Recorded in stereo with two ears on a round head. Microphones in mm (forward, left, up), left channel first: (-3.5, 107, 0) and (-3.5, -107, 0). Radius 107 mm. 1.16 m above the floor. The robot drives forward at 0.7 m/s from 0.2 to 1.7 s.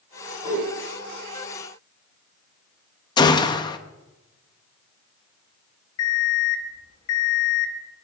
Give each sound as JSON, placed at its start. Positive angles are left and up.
{"t": 0.4, "sound": "a whoosh", "side_deg": -25, "distance_m": 4.5}
{"t": 3.2, "sound": "a gunshot", "side_deg": 20, "distance_m": 0.6}
{"t": 6.0, "sound": "an alarm clock", "side_deg": 80, "distance_m": 3.0}